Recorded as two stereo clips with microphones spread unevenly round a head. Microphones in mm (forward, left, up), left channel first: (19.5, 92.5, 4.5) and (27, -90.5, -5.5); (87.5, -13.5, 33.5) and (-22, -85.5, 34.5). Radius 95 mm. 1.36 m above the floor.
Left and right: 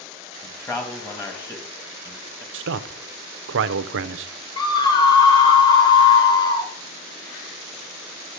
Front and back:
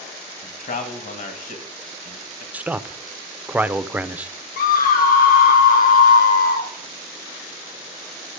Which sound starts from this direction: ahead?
A man speaking, at 0.4 s.